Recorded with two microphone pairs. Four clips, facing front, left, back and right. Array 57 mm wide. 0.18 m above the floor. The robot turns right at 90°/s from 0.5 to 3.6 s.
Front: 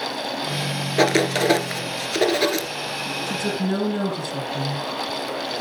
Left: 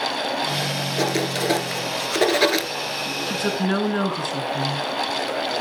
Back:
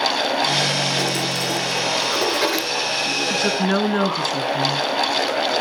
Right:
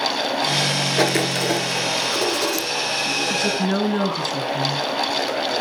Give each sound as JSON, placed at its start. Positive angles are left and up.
{"t": 1.0, "sound": "writing", "azimuth_deg": -40, "distance_m": 1.8}
{"t": 3.3, "sound": "a woman speaking", "azimuth_deg": 125, "distance_m": 2.5}